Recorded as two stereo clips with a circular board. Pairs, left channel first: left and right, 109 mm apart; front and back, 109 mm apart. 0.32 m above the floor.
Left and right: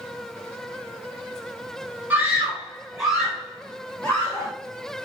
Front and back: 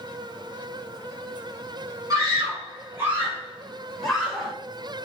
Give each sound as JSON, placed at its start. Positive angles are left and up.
{"t": 2.1, "sound": "a scream", "azimuth_deg": -155, "distance_m": 1.5}